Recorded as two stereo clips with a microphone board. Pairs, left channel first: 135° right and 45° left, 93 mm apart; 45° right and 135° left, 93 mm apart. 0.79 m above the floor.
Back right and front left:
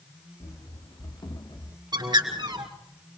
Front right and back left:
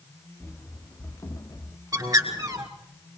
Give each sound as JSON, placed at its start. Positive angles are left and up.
{"t": 0.4, "sound": "running footsteps", "azimuth_deg": -110, "distance_m": 3.0}
{"t": 1.9, "sound": "a bird", "azimuth_deg": 85, "distance_m": 3.0}